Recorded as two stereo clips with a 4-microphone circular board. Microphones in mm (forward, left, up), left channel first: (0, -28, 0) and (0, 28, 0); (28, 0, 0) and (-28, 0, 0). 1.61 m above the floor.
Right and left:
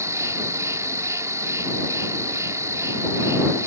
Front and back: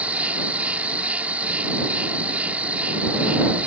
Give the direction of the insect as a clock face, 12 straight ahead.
8 o'clock.